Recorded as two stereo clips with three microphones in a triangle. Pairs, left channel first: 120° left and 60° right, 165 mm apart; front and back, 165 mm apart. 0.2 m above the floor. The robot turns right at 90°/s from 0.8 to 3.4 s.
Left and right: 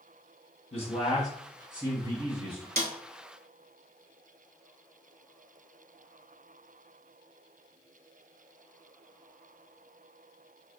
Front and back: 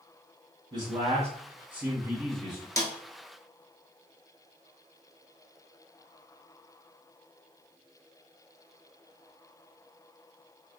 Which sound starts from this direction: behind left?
A man speaking, at 0.7 s.